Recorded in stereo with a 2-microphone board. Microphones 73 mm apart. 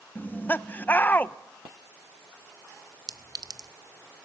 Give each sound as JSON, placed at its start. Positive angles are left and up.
{"t": 0.1, "sound": "laughter", "side_deg": 25, "distance_m": 0.7}
{"t": 3.1, "sound": "a clink", "side_deg": -55, "distance_m": 0.8}